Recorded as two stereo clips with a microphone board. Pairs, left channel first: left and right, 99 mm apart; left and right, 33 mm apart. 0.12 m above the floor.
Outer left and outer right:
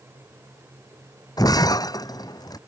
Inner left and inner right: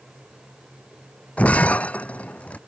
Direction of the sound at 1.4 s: 40° left (ahead or behind).